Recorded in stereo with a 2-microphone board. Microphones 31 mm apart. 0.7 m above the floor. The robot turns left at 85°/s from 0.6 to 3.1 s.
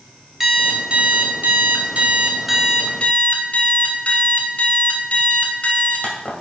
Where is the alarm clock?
10° right, 2.5 m; by 6.3 s 135° left, 2.5 m.